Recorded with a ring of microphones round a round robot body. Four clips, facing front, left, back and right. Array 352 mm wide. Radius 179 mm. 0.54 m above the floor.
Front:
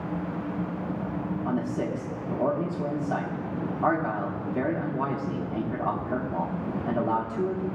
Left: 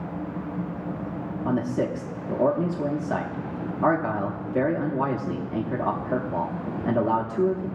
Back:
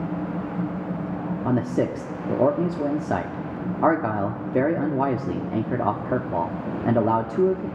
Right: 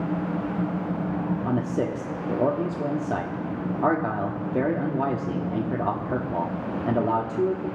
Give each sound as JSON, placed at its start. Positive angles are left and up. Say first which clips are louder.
{"t": 1.4, "sound": "a man speaking", "louder": "left 4 dB, back 7 dB", "azimuth_deg": -170, "distance_m": 0.8}